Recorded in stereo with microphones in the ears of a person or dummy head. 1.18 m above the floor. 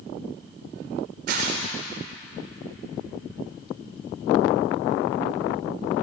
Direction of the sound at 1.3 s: 45° right (ahead or behind).